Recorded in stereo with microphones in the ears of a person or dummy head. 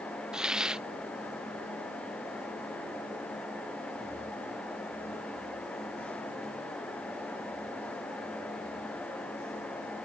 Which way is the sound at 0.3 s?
5° left (ahead or behind).